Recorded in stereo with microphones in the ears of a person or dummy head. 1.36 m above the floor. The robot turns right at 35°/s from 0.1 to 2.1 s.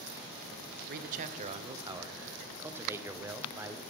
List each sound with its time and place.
0.9 s a man speaking: 55° right, 0.6 m; by 3.8 s 15° right, 0.6 m